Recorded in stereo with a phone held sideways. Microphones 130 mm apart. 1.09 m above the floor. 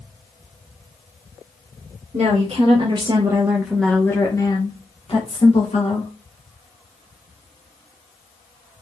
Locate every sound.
2.1 s a woman speaking: 60° right (ahead or behind), 1.2 m; by 6.1 s 55° left (ahead or behind), 1.9 m